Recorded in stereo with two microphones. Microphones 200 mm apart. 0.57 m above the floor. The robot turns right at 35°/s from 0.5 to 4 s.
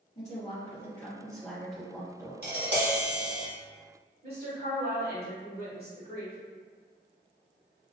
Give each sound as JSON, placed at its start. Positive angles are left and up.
{"t": 0.1, "sound": "a woman speaking", "azimuth_deg": 135, "distance_m": 2.0}
{"t": 2.4, "sound": "tapping", "azimuth_deg": -110, "distance_m": 1.3}
{"t": 4.2, "sound": "a woman speaking", "side_deg": -55, "distance_m": 1.6}